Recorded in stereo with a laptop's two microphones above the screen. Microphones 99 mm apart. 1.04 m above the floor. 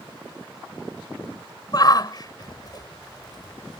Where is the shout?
45° left (ahead or behind).